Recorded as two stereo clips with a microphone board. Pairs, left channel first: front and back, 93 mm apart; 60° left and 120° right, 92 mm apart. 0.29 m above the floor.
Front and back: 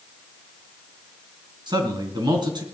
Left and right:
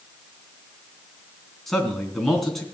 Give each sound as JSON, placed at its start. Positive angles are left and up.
{"t": 1.7, "sound": "a man speaking", "azimuth_deg": 150, "distance_m": 3.5}